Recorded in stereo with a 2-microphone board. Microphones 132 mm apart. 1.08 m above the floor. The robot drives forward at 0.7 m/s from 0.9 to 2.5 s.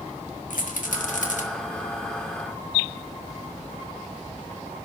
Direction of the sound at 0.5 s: 80° left.